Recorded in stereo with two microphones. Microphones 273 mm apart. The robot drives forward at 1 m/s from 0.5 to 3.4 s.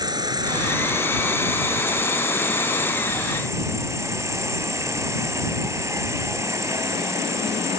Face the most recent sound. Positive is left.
turn(degrees=-10)  # may be behind; listen again after turning